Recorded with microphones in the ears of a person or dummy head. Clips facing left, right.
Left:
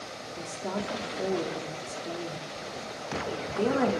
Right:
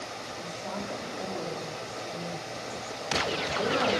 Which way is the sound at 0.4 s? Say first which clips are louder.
Left 4 dB; 45° left (ahead or behind).